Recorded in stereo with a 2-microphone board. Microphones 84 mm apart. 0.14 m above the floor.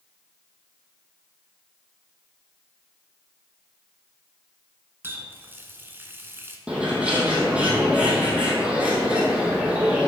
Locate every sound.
5.0 s a running tap: 25° right (ahead or behind), 1.0 m
6.7 s a bird: 15° right (ahead or behind), 2.5 m